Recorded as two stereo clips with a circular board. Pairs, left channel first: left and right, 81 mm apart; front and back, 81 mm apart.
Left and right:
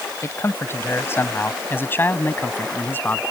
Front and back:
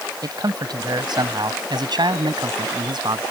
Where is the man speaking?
145° left; by 3.2 s 155° left.